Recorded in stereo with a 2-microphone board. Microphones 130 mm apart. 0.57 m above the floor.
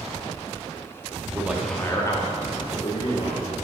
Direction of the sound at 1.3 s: 20° right (ahead or behind).